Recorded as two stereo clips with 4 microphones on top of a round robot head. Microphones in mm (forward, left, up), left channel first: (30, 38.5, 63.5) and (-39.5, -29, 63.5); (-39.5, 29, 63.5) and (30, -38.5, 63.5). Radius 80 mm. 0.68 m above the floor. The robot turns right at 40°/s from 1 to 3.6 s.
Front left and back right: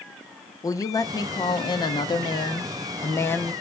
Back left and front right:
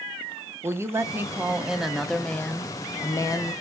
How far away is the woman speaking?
About 0.6 m.